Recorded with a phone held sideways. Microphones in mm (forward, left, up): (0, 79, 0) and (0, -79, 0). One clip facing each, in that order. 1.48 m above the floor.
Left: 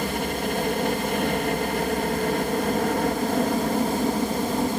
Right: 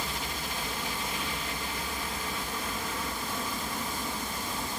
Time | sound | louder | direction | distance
0.0 | a helicopter | left 11 dB | 60° left (ahead or behind) | ?